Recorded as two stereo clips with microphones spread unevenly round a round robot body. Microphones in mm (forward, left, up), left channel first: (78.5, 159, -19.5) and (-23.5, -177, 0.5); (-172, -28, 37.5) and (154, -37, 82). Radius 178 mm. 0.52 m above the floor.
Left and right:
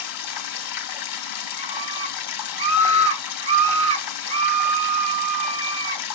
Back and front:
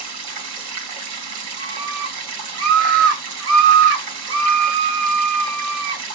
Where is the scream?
35° right, 1.3 m.